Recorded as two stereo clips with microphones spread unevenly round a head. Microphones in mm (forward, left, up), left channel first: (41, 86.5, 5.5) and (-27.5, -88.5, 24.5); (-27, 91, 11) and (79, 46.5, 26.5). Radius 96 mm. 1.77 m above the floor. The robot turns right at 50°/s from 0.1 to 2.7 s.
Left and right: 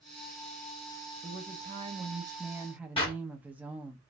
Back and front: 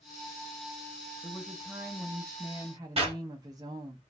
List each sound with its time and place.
1.2 s a woman speaking: 115° right, 0.7 m; by 4.0 s 40° right, 0.7 m
3.0 s a clap: 5° left, 1.9 m